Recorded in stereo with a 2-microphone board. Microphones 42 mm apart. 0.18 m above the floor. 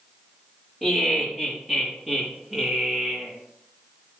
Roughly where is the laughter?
Centre.